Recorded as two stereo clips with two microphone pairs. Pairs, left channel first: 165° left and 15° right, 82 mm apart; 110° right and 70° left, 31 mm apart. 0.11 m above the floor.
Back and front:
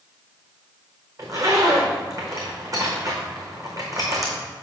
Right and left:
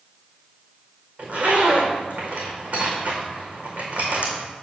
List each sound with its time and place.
1.2 s a zipper: 35° left, 2.5 m